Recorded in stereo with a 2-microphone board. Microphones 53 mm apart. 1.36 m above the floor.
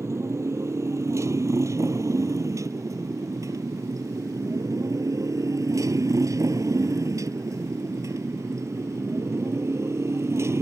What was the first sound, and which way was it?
A motorcycle, 65° right (ahead or behind).